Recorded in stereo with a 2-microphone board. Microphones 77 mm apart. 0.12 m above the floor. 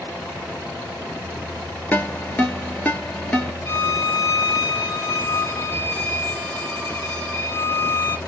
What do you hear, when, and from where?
1.9 s a ringtone: 20° left (ahead or behind), 0.7 m
3.6 s a violin: 25° left (ahead or behind), 0.8 m